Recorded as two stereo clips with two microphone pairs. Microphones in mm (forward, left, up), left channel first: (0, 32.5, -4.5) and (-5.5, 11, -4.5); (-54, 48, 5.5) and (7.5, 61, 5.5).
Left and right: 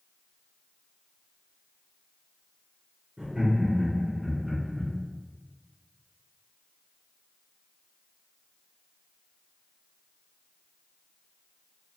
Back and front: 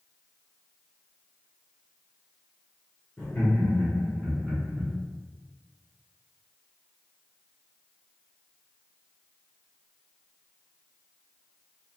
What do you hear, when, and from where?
3.2 s laughter: 105° right, 1.5 m; by 4.9 s 40° left, 1.3 m